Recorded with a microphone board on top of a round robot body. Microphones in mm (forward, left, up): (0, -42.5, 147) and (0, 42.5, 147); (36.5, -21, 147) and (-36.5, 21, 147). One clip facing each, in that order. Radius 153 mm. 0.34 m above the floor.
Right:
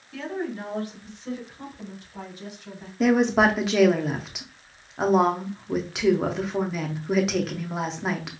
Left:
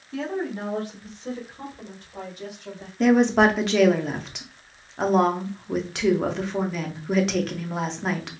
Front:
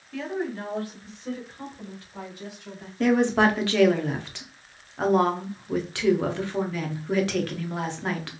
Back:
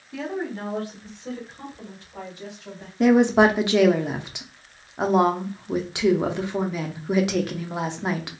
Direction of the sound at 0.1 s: 90° left.